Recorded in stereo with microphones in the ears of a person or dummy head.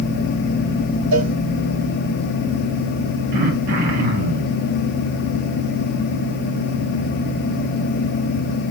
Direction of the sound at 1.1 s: 65° right (ahead or behind).